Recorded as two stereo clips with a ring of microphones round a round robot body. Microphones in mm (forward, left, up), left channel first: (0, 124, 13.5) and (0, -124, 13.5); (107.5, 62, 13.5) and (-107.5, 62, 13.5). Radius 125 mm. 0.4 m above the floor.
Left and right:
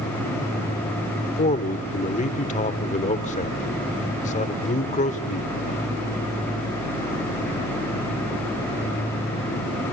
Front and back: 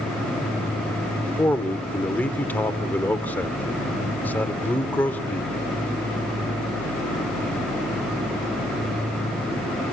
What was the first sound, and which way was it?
A man speaking, 75° left.